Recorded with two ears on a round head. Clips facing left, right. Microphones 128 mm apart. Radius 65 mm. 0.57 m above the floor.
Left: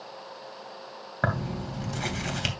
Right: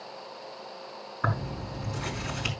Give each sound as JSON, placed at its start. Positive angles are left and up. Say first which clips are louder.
{"t": 1.2, "sound": "tearing paper", "louder": "left 3 dB", "side_deg": 75, "distance_m": 2.5}